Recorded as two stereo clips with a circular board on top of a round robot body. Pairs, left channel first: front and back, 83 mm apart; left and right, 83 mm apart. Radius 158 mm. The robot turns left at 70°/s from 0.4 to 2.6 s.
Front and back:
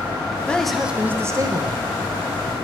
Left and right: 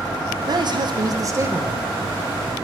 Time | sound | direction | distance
0.5 | a man speaking | 75° right | 1.4 m